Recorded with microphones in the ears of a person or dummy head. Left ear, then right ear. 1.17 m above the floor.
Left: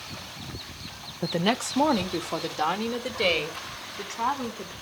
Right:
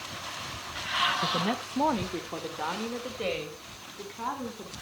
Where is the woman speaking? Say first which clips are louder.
Left 2 dB; 60° left (ahead or behind), 0.7 m; by 4.7 s 85° left, 4 m.